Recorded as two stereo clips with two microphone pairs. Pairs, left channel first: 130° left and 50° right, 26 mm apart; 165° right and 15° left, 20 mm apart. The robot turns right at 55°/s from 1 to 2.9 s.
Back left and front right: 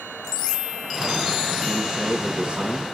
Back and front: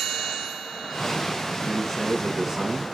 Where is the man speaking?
100° right, 1.0 m; by 2.8 s 35° right, 1.0 m.